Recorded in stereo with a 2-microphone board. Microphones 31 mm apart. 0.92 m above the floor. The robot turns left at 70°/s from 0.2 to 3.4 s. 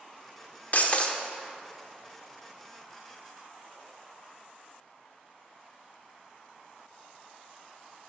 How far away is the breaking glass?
About 0.7 m.